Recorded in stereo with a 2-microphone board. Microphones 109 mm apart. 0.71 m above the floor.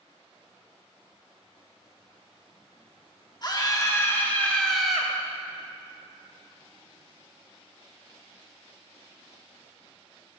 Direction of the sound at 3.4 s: 40° left (ahead or behind).